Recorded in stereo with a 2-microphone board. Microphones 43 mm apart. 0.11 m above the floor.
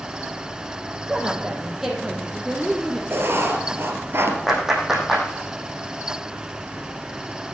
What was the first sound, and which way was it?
A woman speaking, 10° right (ahead or behind).